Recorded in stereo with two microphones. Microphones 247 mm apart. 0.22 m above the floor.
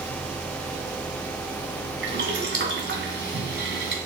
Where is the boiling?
50° right (ahead or behind), 1.6 m.